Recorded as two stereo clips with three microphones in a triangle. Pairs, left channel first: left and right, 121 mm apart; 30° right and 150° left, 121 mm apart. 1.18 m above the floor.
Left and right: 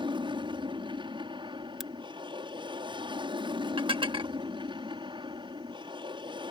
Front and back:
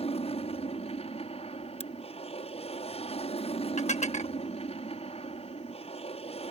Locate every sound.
0.0 s an aircraft: 50° right
1.8 s a crack: straight ahead
3.8 s dishes clattering: 45° right